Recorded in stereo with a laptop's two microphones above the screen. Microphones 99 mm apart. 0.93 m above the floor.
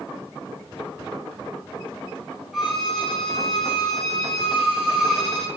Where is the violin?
Centre (ahead or behind), 0.6 m.